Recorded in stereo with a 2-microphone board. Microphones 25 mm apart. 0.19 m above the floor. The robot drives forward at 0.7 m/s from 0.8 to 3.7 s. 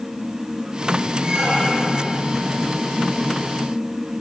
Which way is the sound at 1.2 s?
40° right (ahead or behind).